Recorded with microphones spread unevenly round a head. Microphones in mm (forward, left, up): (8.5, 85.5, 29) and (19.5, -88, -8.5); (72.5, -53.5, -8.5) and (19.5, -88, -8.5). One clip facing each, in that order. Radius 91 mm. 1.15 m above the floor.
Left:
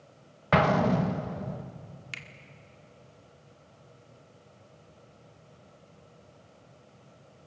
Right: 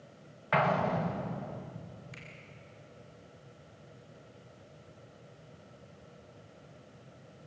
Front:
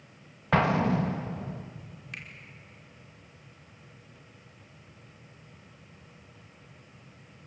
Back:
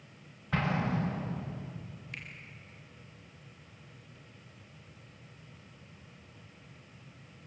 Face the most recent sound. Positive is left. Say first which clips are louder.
# even, front 3 dB
turn(degrees=100)